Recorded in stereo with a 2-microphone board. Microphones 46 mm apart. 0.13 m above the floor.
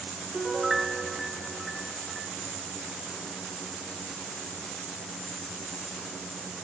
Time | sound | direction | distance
0.3 | a piano | centre (ahead or behind) | 0.6 m